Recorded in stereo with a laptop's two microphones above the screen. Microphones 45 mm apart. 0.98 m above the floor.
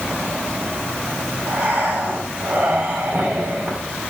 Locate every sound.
1.5 s breathing: 30° right (ahead or behind), 6.5 m